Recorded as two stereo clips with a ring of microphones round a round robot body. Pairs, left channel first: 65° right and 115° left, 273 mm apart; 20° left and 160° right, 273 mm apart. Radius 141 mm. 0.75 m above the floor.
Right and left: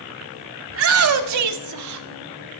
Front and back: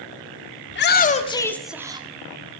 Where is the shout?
70° left, 1.9 m; by 2.1 s 135° left, 1.7 m.